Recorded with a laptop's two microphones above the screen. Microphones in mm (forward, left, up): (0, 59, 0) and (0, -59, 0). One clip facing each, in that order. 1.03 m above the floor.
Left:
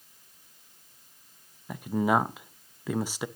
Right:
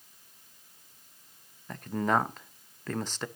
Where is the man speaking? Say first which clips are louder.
Left 3 dB; 10° left (ahead or behind), 0.6 m.